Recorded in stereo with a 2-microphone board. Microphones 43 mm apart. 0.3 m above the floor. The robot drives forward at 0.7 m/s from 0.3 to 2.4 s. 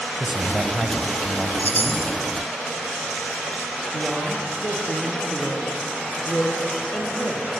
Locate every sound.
0.2 s a man speaking: 5° right (ahead or behind), 1.5 m
1.6 s a chime: 50° left (ahead or behind), 1.3 m; by 2.1 s 60° left (ahead or behind), 1.2 m
3.9 s a woman speaking: 20° left (ahead or behind), 7 m